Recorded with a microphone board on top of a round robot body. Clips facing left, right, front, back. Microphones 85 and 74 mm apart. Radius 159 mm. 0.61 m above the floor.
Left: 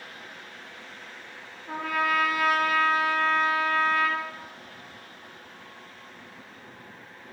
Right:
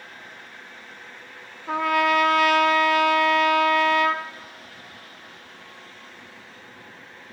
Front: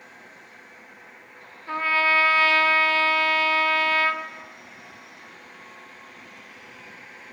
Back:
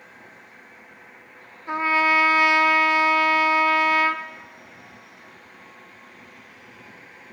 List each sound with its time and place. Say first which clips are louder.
1.7 s a trumpet: right 6 dB, back 2 dB; 110° right, 0.9 m